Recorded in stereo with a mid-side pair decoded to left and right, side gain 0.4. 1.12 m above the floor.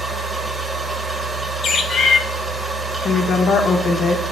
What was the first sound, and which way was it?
A machine running, 30° right.